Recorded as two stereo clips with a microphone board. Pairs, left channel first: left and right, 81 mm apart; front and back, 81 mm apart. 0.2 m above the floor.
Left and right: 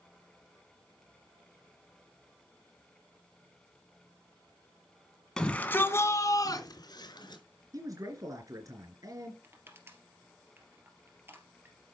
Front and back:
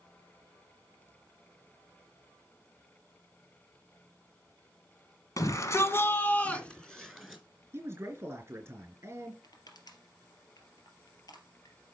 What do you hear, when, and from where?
5.4 s a shout: 10° left, 1.6 m; by 7.4 s 90° left, 3 m
7.7 s a man speaking: 125° right, 3 m
9.4 s crushing: 30° right, 2.5 m